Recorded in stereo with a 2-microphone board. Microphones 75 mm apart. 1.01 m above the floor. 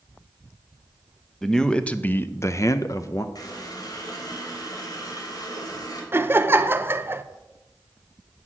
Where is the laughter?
30° right (ahead or behind), 0.7 m.